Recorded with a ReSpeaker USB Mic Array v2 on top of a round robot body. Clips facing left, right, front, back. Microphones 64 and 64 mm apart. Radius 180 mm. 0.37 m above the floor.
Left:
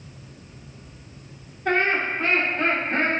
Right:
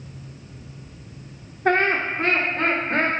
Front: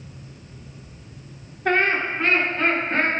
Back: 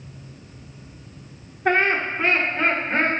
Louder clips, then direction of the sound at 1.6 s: Right 2 dB, back 1 dB; 105° right.